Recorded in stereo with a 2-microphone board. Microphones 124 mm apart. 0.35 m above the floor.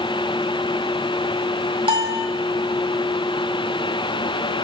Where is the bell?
40° right (ahead or behind), 1.4 m.